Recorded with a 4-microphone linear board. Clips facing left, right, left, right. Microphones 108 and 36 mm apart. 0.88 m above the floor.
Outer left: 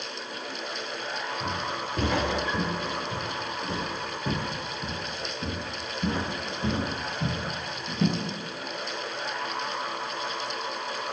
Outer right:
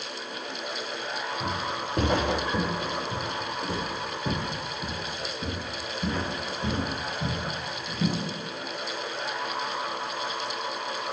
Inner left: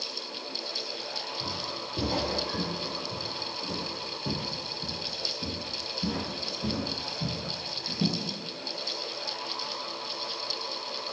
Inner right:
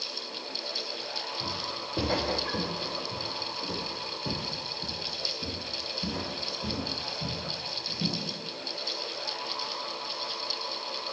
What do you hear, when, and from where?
1.4 s footsteps: 50° right (ahead or behind), 4 m; by 8.2 s 40° left (ahead or behind), 4 m